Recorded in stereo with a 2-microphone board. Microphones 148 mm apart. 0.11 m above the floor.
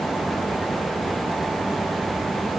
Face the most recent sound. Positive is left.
No sound to turn to.